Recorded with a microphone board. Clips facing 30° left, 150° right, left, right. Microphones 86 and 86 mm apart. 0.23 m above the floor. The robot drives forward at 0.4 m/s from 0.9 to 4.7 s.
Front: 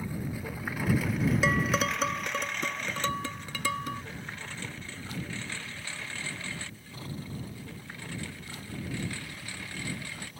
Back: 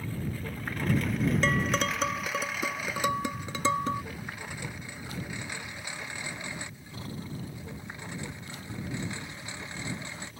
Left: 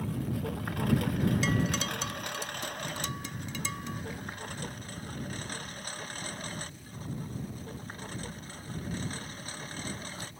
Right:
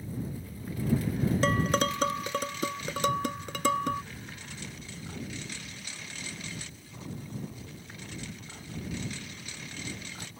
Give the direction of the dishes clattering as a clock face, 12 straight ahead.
2 o'clock.